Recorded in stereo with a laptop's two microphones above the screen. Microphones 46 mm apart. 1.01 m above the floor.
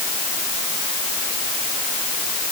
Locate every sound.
Only background noise.